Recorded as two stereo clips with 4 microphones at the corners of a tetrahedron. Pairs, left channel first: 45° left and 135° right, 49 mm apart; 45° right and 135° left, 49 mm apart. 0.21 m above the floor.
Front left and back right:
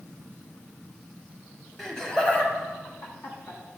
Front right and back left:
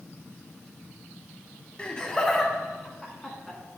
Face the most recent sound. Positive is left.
turn(degrees=50)